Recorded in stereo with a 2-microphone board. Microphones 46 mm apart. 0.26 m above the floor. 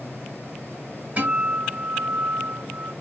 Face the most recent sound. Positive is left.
turn(degrees=-30)  # may be behind; listen again after turning